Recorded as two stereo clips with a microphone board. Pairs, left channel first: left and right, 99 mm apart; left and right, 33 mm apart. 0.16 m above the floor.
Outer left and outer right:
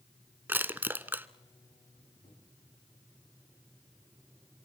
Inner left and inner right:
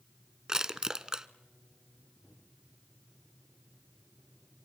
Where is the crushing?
20° right (ahead or behind), 0.8 m.